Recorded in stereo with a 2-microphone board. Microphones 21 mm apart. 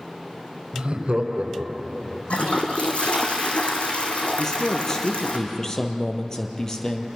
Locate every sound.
0.7 s laughter: 50° right (ahead or behind), 3 m; by 2.2 s 40° right (ahead or behind), 3 m
2.3 s a toilet flushing: 65° left (ahead or behind), 3 m
4.4 s a man speaking: 20° left (ahead or behind), 2.5 m